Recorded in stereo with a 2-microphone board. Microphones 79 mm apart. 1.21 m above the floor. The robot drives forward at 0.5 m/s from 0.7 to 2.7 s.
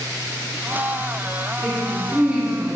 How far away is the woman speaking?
About 3 m.